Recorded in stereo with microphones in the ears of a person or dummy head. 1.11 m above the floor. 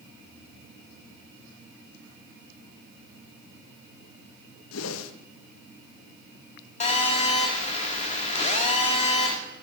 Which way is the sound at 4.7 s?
75° left (ahead or behind).